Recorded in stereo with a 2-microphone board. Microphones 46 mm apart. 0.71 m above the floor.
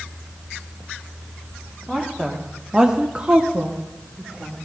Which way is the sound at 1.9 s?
Centre (ahead or behind).